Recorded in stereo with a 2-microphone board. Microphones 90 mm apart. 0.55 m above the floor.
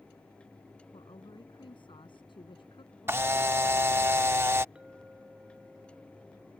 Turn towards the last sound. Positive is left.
turn(degrees=-10)  # may be behind; listen again after turning